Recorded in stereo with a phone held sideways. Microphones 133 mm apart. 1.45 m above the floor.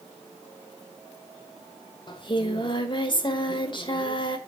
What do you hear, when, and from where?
2.1 s singing: 40° left (ahead or behind), 1.4 m